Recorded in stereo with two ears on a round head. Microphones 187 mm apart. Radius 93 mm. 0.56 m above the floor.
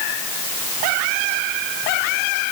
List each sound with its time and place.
Only background noise.